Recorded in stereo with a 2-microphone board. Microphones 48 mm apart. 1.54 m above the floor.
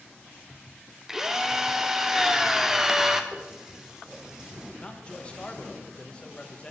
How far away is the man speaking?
About 1.2 m.